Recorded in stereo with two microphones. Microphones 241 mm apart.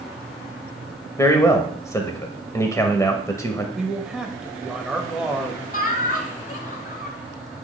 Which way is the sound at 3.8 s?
5° right (ahead or behind).